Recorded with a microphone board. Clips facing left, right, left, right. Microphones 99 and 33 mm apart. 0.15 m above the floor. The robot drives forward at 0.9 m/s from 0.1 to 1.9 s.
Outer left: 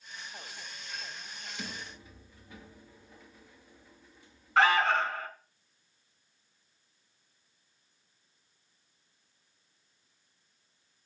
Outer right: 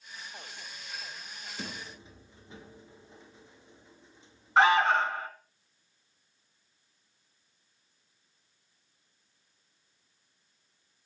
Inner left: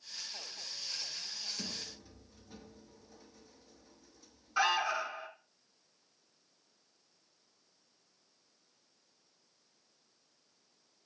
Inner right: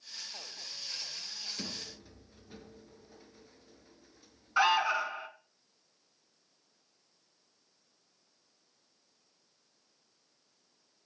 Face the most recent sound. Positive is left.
turn(degrees=-20)  # may be behind; listen again after turning